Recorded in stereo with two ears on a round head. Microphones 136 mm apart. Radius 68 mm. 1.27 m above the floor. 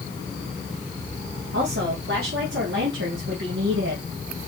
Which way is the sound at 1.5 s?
90° right.